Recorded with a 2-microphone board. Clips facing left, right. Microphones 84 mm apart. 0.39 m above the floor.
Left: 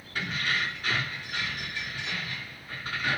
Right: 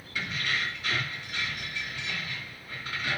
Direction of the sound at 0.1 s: 45° left (ahead or behind).